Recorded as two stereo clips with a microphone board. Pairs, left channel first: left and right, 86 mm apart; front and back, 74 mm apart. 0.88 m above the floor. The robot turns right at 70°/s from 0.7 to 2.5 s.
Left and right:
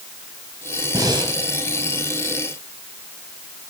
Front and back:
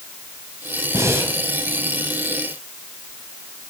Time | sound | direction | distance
0.9 | breathing | 135° right | 3 m